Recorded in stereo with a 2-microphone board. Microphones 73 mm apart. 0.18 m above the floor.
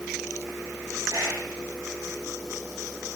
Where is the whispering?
65° right (ahead or behind), 3 m.